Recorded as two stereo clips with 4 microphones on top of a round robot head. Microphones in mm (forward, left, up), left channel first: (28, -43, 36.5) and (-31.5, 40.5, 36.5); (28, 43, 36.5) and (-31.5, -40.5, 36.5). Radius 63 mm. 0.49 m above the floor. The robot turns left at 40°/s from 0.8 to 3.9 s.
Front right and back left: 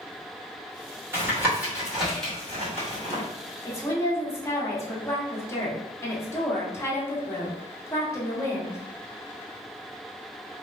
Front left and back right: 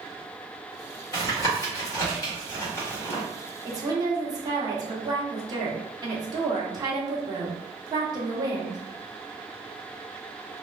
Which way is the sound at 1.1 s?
75° left.